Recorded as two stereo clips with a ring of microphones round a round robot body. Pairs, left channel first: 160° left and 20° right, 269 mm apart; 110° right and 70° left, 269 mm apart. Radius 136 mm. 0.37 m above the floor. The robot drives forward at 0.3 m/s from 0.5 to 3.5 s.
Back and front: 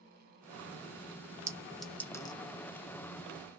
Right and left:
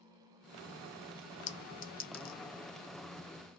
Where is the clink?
90° right, 0.5 m; by 2.4 s 140° right, 0.6 m.